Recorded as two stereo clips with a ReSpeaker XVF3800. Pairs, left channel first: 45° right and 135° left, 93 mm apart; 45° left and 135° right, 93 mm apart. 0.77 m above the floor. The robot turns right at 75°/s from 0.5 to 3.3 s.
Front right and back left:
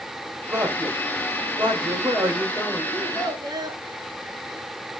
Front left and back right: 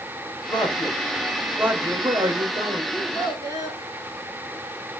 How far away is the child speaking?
About 4.5 m.